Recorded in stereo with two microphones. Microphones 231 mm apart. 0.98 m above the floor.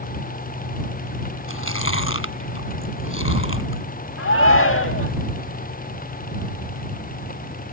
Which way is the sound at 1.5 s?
70° left (ahead or behind).